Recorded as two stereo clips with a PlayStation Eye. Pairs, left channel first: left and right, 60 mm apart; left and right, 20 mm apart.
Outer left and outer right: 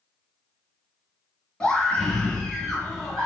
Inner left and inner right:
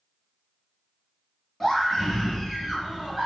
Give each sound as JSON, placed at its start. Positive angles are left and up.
{"t": 1.6, "sound": "a scream", "side_deg": 15, "distance_m": 1.3}